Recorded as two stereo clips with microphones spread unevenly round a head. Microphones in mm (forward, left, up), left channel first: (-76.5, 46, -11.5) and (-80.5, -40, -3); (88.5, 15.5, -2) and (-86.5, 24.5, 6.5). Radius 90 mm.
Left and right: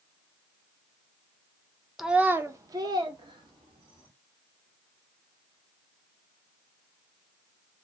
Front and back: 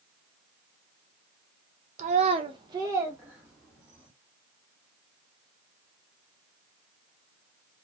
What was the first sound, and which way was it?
A child speaking, 170° right.